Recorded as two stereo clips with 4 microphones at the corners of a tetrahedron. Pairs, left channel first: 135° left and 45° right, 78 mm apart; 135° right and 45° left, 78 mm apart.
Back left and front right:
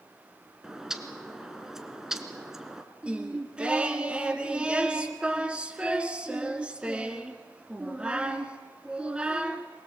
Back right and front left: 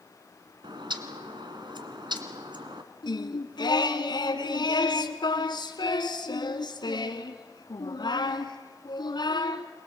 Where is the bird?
40° left, 1.3 m.